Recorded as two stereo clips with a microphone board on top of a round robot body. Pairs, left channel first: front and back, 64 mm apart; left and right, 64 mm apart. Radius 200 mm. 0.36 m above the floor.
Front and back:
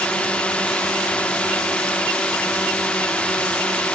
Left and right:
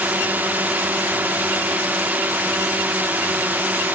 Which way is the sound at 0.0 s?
55° right.